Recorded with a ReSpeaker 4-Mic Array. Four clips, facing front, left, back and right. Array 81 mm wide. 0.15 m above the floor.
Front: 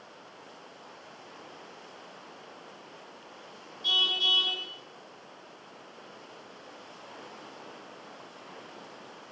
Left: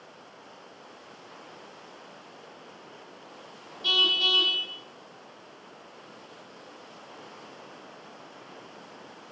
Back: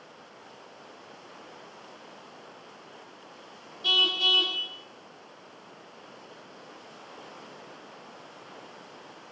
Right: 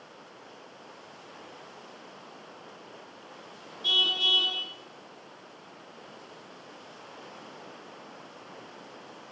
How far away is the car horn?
About 3 m.